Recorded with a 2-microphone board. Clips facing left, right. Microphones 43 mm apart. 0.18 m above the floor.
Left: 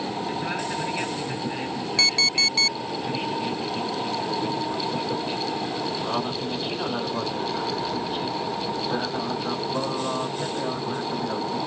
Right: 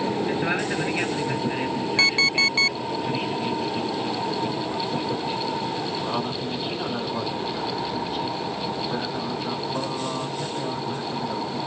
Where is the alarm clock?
25° right (ahead or behind).